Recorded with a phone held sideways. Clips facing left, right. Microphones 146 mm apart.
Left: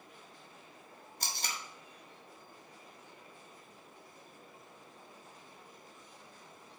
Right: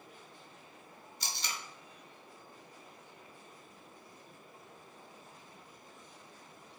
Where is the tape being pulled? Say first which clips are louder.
Left 1 dB; 50° left (ahead or behind), 0.6 m.